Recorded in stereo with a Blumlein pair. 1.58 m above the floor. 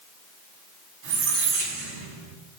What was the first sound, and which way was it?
A squeak, 50° right.